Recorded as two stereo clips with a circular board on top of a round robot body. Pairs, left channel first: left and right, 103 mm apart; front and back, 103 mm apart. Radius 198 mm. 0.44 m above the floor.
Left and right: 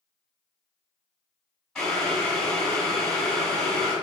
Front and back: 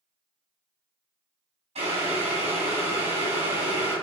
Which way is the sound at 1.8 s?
175° left.